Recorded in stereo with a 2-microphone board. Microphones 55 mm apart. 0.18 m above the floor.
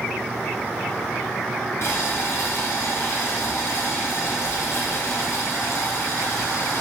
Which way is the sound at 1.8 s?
50° left (ahead or behind).